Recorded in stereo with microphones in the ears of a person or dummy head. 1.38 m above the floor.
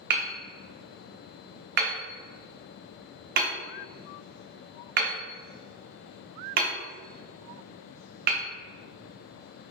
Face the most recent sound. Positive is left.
turn(degrees=-50)  # may be behind; listen again after turning